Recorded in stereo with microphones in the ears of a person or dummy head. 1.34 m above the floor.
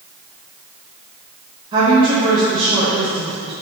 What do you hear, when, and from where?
1.7 s a woman speaking: 25° right (ahead or behind), 1.4 m